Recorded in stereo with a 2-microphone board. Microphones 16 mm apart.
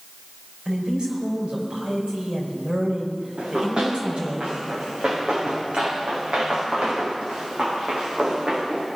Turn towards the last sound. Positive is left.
turn(degrees=-70)  # may be behind; listen again after turning